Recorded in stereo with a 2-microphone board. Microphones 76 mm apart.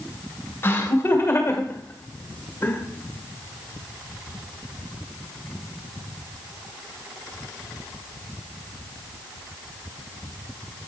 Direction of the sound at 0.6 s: 30° left (ahead or behind).